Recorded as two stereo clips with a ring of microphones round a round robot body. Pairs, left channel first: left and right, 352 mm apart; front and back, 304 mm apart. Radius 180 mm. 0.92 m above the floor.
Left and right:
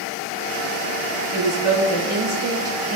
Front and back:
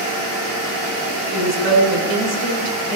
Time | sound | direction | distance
1.3 | a woman speaking | 150° left | 3 m